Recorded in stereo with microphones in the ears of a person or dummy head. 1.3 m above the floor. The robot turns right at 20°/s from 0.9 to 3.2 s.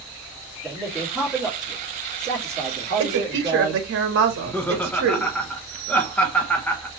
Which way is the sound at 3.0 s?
75° right (ahead or behind).